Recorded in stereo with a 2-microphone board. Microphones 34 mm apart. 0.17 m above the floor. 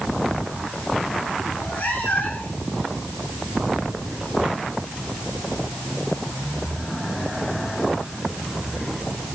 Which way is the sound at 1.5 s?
70° left (ahead or behind).